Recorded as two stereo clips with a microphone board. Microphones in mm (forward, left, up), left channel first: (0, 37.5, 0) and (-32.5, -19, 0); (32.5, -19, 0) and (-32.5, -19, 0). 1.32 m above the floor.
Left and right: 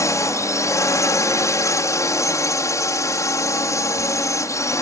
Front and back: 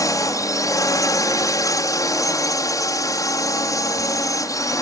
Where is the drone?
25° left.